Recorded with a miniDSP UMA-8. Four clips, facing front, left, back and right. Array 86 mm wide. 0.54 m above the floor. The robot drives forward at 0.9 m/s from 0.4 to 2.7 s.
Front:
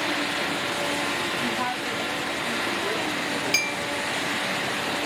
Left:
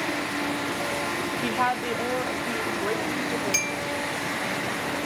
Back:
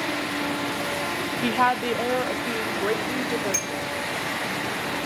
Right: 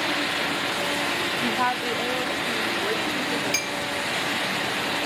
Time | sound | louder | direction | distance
1.4 | a woman speaking | even, back 6 dB | 175° left | 0.7 m
3.5 | a clink | right 1 dB, front 1 dB | 10° right | 0.9 m